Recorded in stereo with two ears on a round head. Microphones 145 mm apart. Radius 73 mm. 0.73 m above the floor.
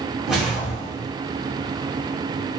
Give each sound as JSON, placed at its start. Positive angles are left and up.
{"t": 0.3, "sound": "a whoosh", "side_deg": -5, "distance_m": 0.9}